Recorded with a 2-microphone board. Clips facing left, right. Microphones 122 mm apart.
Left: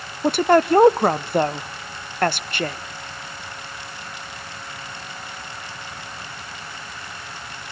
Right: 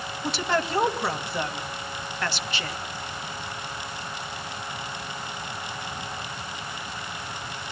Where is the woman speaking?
55° left (ahead or behind), 0.8 m.